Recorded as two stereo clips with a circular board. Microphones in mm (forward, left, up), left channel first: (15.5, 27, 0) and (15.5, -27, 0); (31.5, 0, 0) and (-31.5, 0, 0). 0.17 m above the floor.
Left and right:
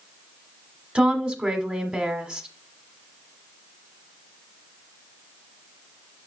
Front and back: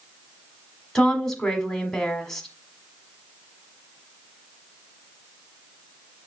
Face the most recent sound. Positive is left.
turn(degrees=-65)